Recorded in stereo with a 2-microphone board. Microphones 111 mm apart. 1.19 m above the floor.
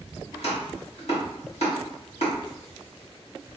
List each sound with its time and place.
0.3 s chopping: 65° left (ahead or behind), 2 m